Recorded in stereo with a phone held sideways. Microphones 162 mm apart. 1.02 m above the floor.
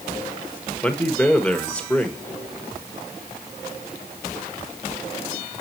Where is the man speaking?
10° left (ahead or behind), 1.4 m.